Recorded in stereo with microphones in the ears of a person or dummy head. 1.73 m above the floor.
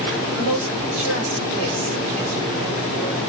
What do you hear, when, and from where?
0.3 s a woman speaking: 80° right, 1.2 m